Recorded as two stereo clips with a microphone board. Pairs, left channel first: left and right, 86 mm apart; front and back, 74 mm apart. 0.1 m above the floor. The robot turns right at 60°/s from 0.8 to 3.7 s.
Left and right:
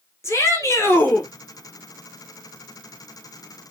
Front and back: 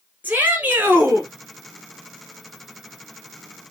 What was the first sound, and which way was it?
A shout, 125° left.